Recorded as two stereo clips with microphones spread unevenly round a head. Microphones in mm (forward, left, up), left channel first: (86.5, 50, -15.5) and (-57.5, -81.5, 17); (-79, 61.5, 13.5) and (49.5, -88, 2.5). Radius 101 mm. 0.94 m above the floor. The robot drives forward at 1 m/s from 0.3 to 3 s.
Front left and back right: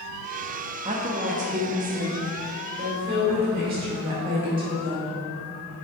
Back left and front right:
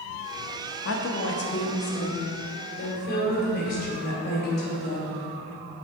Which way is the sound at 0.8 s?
155° left.